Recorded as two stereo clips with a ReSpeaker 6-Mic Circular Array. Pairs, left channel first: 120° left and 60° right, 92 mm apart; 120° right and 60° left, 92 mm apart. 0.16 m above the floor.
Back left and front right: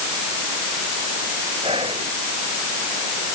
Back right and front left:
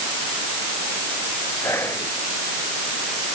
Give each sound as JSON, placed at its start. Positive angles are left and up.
{"t": 1.6, "sound": "whispering", "azimuth_deg": -60}